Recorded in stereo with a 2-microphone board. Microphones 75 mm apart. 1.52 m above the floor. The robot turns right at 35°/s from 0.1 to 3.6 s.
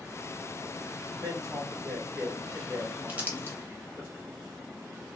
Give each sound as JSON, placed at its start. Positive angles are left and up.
{"t": 1.2, "sound": "a man speaking", "side_deg": -60, "distance_m": 1.4}
{"t": 3.1, "sound": "crumpling", "side_deg": -20, "distance_m": 0.8}